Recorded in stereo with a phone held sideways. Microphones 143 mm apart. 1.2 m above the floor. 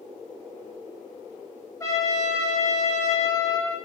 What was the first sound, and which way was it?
A trumpet, 25° left (ahead or behind).